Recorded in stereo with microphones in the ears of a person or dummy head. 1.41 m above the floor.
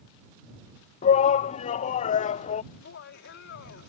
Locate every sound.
1.0 s a shout: 40° left (ahead or behind)
2.7 s laughter: 65° left (ahead or behind)